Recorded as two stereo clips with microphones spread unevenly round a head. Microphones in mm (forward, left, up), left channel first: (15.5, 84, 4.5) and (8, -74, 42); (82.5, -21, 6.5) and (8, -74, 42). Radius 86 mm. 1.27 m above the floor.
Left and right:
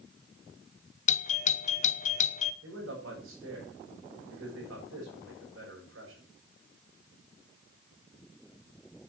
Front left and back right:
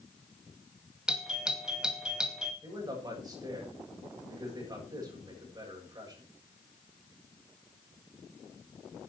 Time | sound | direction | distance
1.1 | a doorbell | 120° left | 0.8 m
2.6 | a man speaking | 100° right | 7.5 m